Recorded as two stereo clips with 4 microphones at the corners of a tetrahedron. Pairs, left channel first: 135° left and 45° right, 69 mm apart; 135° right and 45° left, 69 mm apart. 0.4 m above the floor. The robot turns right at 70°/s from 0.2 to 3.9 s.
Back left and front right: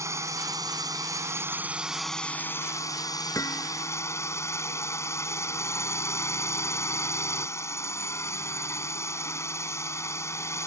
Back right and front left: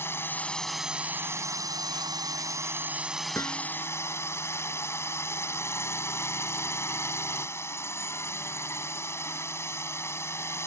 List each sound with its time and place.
0.0 s a drone: 80° right; by 10.7 s 175° left
3.4 s hammering: 175° left; by 3.7 s 160° right